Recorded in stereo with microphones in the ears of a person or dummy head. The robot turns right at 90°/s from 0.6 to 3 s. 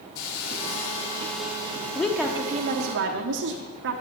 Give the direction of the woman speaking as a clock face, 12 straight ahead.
6 o'clock.